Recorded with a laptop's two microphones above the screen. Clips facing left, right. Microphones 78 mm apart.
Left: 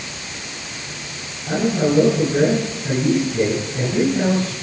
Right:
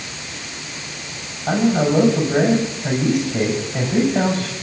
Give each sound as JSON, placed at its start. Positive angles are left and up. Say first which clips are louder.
{"t": 1.5, "sound": "a man speaking", "louder": "right 2 dB", "side_deg": -80, "distance_m": 6.5}